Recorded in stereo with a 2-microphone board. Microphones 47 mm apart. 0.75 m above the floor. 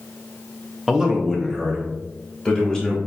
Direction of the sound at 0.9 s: 10° right (ahead or behind).